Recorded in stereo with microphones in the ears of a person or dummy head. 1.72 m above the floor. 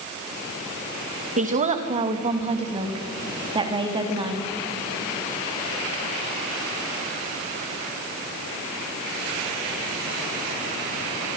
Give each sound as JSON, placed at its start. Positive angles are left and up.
{"t": 1.4, "sound": "a woman speaking", "side_deg": -40, "distance_m": 2.0}